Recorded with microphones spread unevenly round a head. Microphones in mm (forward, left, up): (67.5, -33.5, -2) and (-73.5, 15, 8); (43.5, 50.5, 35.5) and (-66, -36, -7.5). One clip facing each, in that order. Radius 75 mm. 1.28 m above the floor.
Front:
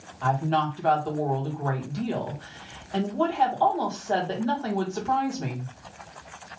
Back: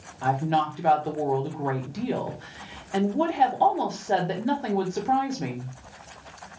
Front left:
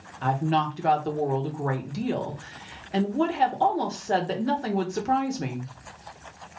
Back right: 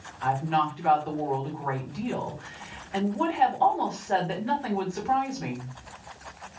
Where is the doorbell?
No doorbell in this recording.